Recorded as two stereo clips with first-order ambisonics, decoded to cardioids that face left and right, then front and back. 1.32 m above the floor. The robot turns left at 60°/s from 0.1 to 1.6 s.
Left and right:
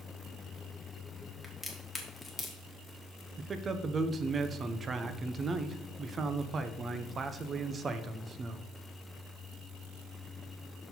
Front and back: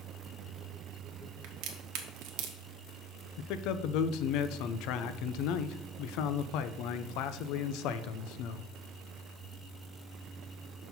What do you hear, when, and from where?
1.4 s a crack: 175° right, 1.3 m; by 2.6 s 175° left, 1.3 m
3.4 s a man speaking: 20° right, 0.6 m